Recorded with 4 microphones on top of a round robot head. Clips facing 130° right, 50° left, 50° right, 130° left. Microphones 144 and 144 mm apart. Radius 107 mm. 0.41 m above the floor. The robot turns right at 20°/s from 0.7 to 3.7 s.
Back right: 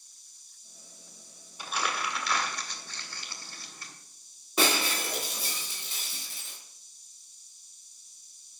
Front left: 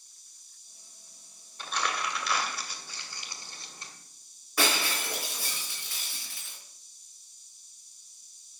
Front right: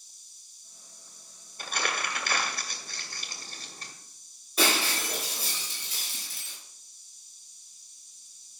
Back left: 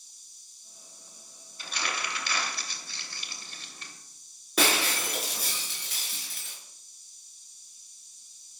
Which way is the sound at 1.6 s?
55° right.